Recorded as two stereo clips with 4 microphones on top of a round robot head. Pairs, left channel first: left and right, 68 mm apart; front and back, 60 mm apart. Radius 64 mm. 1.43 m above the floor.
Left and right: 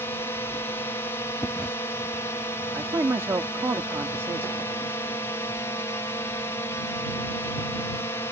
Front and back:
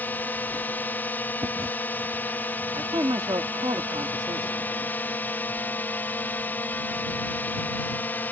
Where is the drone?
50° left.